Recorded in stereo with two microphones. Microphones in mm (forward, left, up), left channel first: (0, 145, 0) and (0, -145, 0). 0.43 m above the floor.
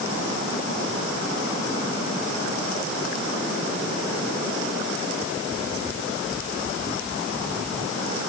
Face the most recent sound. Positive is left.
No sound to turn to.